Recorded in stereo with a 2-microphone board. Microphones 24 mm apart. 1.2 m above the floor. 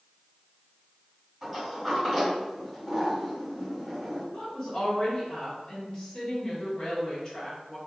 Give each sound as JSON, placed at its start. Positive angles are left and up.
{"t": 1.4, "sound": "a sliding door", "side_deg": -5, "distance_m": 1.9}
{"t": 4.3, "sound": "a woman speaking", "side_deg": 30, "distance_m": 1.4}